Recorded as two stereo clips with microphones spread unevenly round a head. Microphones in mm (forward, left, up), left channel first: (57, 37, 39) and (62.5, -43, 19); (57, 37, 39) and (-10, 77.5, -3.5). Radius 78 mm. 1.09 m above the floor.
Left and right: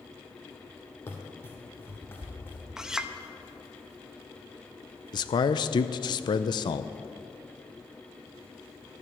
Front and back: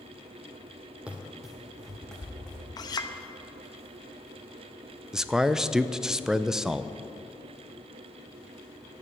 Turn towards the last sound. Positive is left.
turn(degrees=110)